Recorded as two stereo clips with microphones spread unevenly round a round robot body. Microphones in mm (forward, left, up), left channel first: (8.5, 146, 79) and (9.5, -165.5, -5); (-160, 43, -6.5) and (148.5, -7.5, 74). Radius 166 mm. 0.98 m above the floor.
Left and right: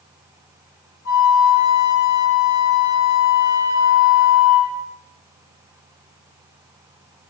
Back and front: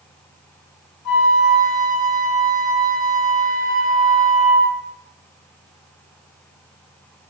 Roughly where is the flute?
Behind left.